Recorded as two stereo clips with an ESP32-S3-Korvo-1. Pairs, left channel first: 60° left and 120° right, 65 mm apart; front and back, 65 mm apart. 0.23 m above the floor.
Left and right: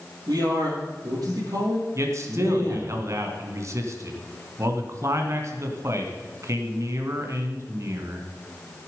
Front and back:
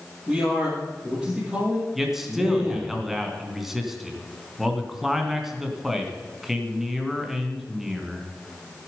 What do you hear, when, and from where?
0.3 s a man speaking: 95° right, 6 m
1.9 s a man speaking: 95° right, 2.5 m